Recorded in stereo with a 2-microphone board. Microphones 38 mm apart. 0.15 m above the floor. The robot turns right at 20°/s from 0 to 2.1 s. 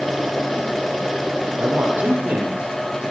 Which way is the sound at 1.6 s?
60° right (ahead or behind).